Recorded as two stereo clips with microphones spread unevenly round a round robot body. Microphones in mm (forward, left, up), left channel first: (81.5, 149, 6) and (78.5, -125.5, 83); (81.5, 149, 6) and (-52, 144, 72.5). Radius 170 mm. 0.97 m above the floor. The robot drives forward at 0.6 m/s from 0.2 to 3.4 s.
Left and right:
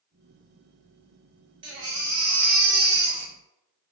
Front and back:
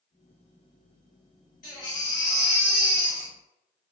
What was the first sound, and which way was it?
A baby crying, 50° right.